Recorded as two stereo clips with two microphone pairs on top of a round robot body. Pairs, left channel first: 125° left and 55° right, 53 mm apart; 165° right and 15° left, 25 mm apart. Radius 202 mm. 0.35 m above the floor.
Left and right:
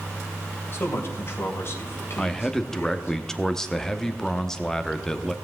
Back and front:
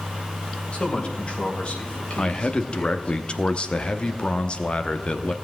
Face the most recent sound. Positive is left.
turn(degrees=-170)